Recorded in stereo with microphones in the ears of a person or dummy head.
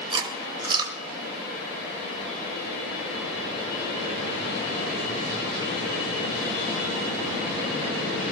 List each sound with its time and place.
0.1 s chewing: 25° right (ahead or behind), 3.5 m